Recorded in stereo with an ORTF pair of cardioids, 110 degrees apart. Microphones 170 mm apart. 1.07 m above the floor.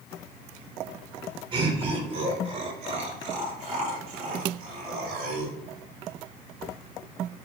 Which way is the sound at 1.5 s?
30° right.